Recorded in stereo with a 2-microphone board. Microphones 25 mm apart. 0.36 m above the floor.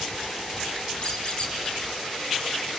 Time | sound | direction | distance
1.0 | a squeak | 45° left (ahead or behind) | 2 m